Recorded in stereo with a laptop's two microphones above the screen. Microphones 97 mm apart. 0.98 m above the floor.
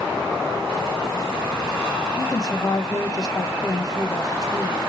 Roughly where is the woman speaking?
Left.